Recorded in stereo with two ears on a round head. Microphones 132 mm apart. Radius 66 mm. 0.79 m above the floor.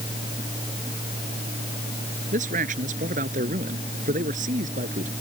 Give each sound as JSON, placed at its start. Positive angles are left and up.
{"t": 2.3, "sound": "a man speaking", "side_deg": -55}